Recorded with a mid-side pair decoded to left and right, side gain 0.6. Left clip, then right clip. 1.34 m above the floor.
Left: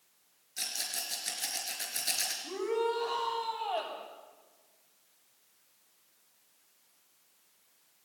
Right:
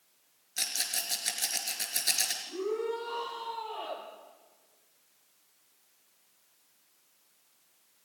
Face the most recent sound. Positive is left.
turn(degrees=65)